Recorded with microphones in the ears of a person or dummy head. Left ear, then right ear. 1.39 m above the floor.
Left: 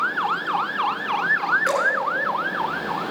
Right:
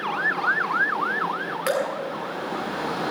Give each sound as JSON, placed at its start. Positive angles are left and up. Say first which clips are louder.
{"t": 1.7, "sound": "dripping", "louder": "left 4 dB", "side_deg": -30, "distance_m": 3.0}